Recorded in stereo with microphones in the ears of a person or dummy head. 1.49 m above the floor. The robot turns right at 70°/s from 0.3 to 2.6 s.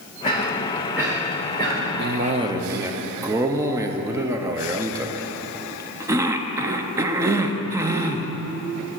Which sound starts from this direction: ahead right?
A cough, at 2.0 s.